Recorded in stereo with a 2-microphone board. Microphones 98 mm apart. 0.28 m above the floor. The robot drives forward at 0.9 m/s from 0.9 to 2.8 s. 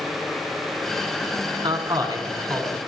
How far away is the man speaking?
About 2.5 m.